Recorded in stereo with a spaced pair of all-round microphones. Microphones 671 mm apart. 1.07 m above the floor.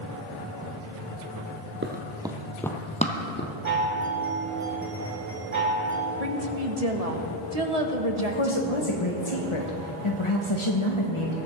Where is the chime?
60° right (ahead or behind), 3 m.